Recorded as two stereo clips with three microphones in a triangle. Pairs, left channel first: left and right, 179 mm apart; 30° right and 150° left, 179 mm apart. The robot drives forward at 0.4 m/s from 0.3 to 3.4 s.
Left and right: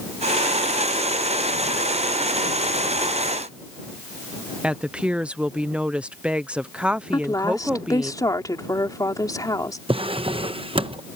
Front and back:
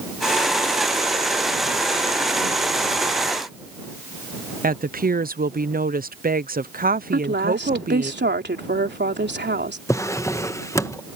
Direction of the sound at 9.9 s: 90° right.